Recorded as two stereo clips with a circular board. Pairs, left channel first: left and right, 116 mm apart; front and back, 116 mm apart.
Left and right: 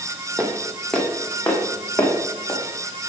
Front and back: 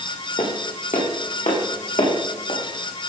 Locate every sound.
0.4 s footsteps: straight ahead, 3 m; by 2.6 s 25° left, 5 m